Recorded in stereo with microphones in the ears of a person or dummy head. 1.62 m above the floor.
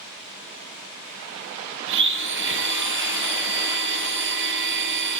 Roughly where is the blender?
Right.